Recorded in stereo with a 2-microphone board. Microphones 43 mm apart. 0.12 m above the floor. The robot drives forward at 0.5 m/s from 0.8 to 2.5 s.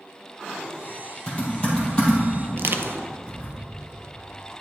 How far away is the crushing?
About 0.6 m.